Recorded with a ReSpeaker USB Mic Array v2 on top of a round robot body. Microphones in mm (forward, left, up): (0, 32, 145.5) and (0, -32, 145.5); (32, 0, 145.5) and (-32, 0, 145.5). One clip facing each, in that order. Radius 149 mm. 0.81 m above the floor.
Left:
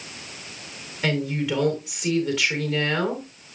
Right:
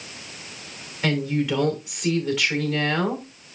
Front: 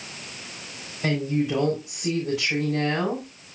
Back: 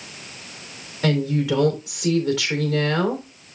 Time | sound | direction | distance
1.0 | a woman speaking | straight behind | 3.5 m